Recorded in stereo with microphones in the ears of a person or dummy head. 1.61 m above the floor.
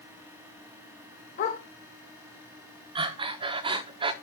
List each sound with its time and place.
1.4 s a dog barking: 50° left (ahead or behind), 2 m
3.0 s breathing: 35° right (ahead or behind), 0.9 m